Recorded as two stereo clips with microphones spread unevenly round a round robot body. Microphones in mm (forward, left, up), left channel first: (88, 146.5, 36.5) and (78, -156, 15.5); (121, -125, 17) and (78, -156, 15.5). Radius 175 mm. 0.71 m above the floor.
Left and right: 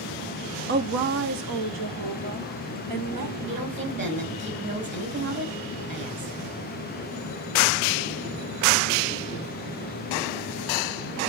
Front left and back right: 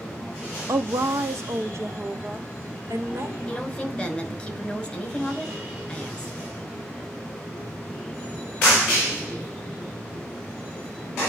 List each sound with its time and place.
0.7 s a woman speaking: 140° right, 0.8 m; by 3.4 s 110° right, 2.5 m
3.5 s a woman speaking: 40° right, 5 m